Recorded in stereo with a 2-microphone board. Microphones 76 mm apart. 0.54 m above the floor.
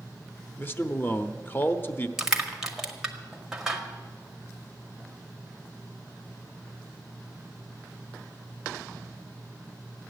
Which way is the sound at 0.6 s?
30° left (ahead or behind).